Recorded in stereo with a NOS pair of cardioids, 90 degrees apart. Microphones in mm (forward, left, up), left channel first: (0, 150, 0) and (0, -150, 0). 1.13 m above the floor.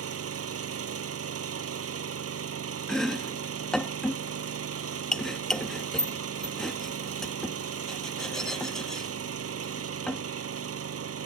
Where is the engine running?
50° right.